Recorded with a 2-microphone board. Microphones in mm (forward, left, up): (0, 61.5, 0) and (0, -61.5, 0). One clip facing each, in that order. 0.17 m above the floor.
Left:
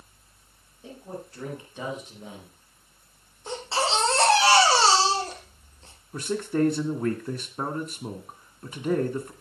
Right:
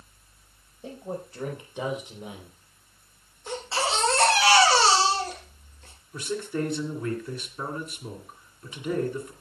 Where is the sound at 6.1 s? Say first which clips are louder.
Left 4 dB; 45° left (ahead or behind), 2.5 m.